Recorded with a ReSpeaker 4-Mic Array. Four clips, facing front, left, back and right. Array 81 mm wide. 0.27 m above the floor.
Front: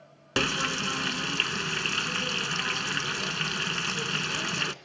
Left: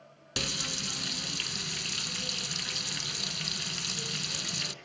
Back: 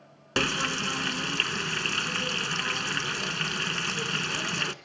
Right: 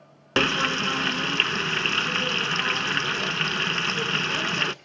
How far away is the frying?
About 0.6 m.